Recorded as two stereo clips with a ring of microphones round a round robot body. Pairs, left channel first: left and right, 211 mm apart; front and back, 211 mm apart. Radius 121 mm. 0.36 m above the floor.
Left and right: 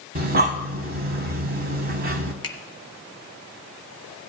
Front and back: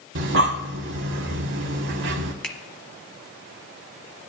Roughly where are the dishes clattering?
No dishes clattering in this recording.